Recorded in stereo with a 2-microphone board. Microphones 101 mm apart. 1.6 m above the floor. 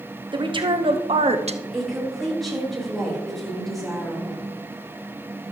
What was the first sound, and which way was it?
A woman speaking, 45° right (ahead or behind).